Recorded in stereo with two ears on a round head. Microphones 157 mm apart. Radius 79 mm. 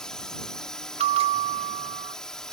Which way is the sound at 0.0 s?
5° left (ahead or behind).